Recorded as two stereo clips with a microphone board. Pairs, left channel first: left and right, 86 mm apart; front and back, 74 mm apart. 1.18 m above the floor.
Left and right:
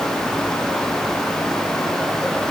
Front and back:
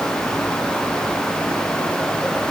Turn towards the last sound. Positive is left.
No sound to turn to.